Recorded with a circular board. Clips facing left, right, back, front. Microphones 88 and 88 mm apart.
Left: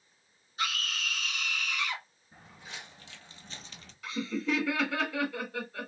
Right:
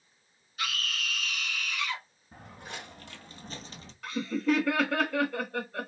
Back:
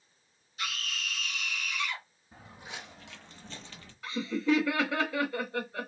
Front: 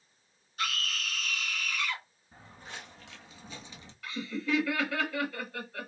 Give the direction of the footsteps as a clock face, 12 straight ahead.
3 o'clock.